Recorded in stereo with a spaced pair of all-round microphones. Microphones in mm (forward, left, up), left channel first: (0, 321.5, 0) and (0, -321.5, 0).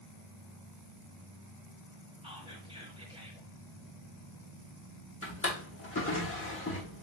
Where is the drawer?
20° left (ahead or behind), 0.8 m.